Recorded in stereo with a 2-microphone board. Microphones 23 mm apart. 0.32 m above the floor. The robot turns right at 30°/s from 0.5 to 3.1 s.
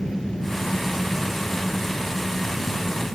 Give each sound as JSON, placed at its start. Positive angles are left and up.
{"t": 0.0, "sound": "an engine running", "azimuth_deg": 55}